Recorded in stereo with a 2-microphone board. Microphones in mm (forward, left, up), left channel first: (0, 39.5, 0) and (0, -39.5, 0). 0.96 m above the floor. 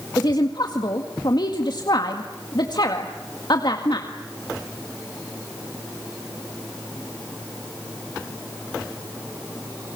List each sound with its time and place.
0.2 s a woman speaking: 65° left (ahead or behind), 1.9 m